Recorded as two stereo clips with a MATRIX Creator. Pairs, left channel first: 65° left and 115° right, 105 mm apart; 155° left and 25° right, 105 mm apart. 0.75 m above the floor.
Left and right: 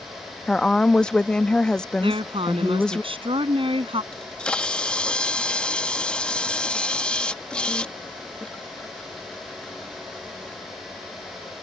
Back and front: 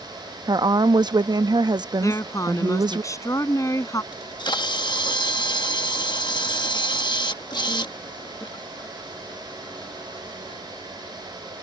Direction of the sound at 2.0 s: 145° right.